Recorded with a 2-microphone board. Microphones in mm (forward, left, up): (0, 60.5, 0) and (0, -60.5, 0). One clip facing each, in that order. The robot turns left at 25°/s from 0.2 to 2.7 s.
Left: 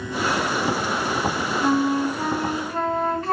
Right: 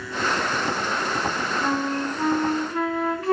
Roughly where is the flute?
Centre.